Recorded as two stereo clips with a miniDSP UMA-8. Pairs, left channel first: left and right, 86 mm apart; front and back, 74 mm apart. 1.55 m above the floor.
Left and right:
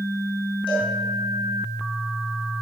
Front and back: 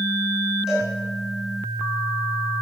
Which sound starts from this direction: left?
A cowbell, at 0.7 s.